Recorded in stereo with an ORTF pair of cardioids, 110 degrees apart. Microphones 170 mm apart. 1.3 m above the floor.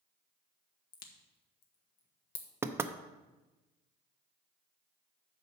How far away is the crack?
About 1.5 m.